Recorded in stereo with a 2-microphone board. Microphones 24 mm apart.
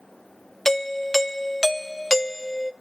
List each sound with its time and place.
0.7 s a doorbell: 15° left (ahead or behind), 0.7 m